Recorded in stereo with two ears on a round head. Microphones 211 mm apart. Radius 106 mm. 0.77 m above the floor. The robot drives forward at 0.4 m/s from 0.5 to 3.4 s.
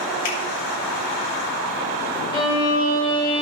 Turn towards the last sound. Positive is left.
turn(degrees=25)  # may be behind; listen again after turning